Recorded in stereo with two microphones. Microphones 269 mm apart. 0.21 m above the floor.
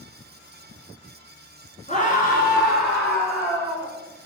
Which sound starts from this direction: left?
A scream, at 1.9 s.